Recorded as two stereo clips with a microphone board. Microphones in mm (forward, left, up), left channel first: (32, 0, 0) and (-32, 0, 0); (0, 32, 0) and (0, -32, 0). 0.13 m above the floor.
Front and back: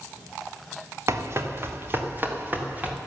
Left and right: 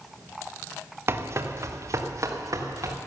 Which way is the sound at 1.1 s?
140° right.